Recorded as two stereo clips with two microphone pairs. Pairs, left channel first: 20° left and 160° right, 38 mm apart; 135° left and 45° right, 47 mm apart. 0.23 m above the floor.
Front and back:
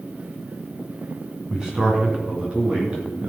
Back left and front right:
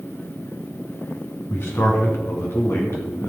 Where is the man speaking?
125° left, 3 m; by 3.3 s 140° left, 4.5 m.